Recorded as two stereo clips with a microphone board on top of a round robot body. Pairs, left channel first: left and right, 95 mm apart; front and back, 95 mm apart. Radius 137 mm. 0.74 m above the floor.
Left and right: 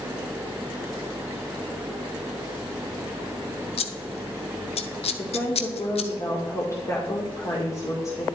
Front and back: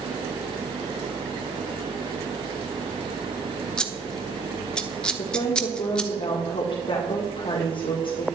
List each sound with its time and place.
3.8 s scissors: 80° left, 0.9 m
5.2 s a woman speaking: 35° left, 1.9 m